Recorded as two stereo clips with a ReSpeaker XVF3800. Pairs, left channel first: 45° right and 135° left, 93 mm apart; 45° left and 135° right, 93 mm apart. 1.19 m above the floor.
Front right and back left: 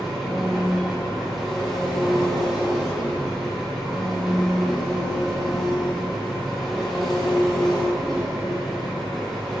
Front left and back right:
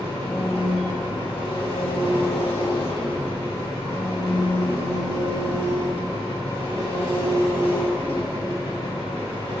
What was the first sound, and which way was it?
An engine running, 45° left.